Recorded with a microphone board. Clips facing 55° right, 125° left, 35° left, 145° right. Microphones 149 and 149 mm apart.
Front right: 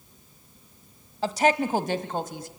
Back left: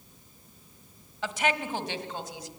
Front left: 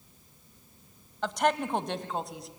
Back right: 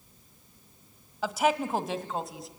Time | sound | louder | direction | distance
1.2 | a woman speaking | front right 7 dB, back right 1 dB | 65° right | 1.4 m